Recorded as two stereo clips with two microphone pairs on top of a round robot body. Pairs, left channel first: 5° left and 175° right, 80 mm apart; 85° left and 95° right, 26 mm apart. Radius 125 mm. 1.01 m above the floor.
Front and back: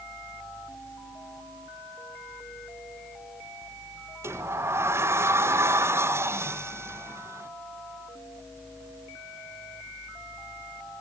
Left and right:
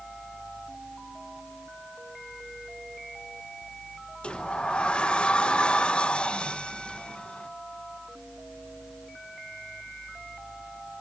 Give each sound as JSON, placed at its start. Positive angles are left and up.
{"t": 4.2, "sound": "a sliding door", "azimuth_deg": 130, "distance_m": 1.1}